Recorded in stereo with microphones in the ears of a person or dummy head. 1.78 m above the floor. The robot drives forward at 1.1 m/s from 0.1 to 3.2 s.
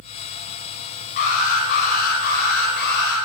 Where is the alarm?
50° left (ahead or behind), 7.5 m; by 3.2 s 70° left (ahead or behind), 6.5 m.